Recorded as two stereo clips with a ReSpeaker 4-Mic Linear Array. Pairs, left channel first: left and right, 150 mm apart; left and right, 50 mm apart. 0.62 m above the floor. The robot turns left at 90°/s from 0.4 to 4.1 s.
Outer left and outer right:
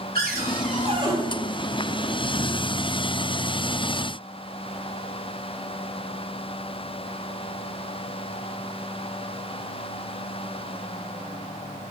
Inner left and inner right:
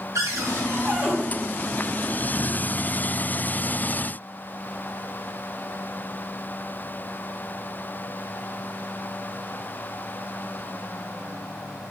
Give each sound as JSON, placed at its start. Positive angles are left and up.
{"t": 0.1, "sound": "a cupboard door", "azimuth_deg": -95, "distance_m": 1.9}